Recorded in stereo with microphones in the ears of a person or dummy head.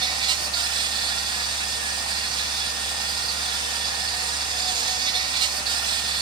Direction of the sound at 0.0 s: 30° right (ahead or behind).